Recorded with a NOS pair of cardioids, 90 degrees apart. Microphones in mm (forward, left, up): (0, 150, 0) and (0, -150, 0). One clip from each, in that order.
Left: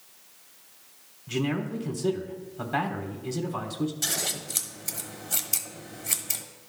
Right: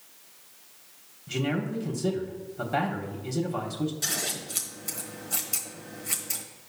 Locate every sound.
1.3 s a man speaking: straight ahead, 1.1 m
4.0 s scissors: 20° left, 1.1 m